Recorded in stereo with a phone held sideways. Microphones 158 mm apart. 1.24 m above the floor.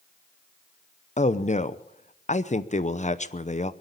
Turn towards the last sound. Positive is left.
turn(degrees=45)  # may be behind; listen again after turning